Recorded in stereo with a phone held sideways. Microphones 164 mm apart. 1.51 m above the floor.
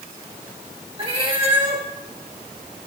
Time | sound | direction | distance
1.0 | a cat meowing | 35° right (ahead or behind) | 1.4 m